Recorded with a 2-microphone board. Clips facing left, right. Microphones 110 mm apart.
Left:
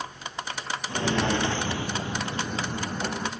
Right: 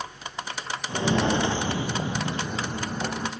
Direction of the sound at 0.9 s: 15° right (ahead or behind).